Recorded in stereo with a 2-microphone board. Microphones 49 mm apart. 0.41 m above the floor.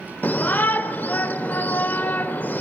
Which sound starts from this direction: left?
A shout, at 0.2 s.